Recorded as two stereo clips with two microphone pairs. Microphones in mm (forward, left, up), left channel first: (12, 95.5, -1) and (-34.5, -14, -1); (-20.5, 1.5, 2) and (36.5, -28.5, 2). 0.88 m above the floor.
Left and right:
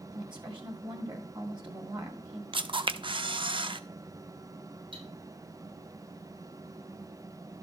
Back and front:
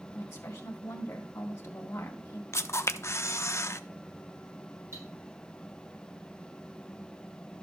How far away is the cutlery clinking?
About 5.5 m.